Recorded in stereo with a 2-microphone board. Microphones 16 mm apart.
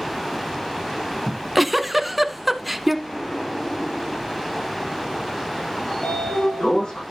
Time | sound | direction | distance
1.3 | a giggle | 15° right (ahead or behind) | 0.8 m
3.0 | an explosion | 55° left (ahead or behind) | 6 m
5.9 | a sliding door | 75° left (ahead or behind) | 7 m